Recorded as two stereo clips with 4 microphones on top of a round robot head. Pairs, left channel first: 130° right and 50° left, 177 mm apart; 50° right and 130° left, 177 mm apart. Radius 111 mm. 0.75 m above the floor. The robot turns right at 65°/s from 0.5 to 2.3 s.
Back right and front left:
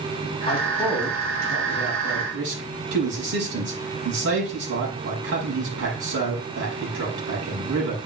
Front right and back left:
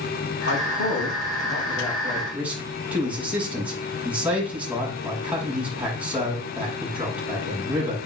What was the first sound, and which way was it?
A man speaking, 70° right.